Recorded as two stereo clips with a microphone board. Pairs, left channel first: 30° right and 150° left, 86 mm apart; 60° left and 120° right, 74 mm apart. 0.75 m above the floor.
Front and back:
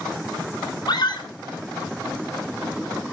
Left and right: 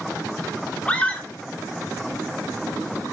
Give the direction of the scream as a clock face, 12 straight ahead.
12 o'clock.